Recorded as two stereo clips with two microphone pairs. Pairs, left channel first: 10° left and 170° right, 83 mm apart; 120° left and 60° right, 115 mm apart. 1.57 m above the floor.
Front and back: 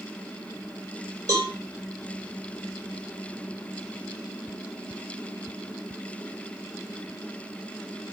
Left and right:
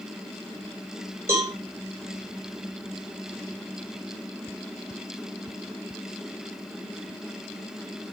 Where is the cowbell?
125° right, 6.5 m.